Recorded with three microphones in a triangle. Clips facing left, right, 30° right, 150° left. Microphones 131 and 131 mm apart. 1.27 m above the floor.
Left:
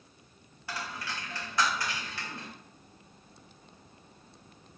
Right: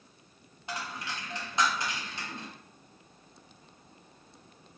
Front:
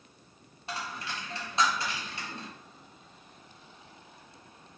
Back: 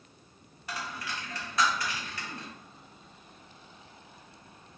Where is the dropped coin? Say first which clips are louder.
Even, even; 50° right, 0.7 m.